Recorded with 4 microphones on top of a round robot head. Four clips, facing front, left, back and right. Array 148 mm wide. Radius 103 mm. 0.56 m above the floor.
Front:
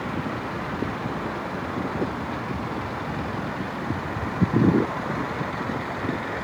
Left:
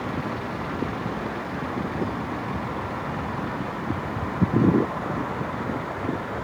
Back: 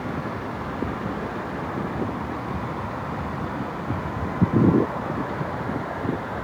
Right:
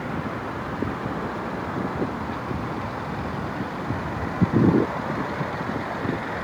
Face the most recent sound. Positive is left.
No sound to turn to.